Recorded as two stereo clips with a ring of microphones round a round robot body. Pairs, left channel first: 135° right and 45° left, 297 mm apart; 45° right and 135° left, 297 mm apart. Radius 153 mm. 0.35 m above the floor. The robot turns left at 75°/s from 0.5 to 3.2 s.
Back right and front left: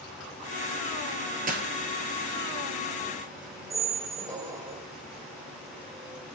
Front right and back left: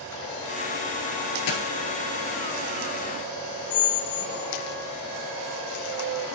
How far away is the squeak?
About 0.7 m.